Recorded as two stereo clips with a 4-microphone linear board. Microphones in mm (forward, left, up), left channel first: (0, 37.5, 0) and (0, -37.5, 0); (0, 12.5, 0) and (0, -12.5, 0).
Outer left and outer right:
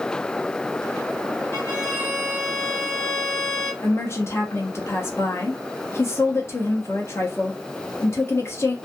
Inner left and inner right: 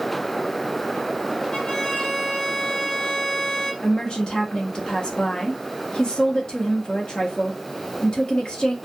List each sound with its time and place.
1.5 s a violin: 35° left (ahead or behind), 1.2 m
3.8 s a woman speaking: 40° left (ahead or behind), 0.8 m